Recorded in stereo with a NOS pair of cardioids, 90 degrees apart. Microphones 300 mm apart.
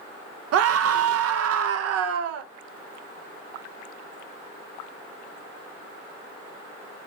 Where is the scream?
55° right, 0.6 m.